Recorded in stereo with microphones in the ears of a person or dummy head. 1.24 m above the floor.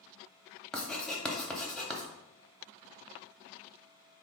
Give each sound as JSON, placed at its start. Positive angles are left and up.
{"t": 0.7, "sound": "writing", "side_deg": 5, "distance_m": 0.6}